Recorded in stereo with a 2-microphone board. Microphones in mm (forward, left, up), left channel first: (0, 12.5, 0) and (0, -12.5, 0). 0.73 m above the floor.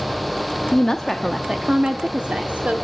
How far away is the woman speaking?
About 1.0 m.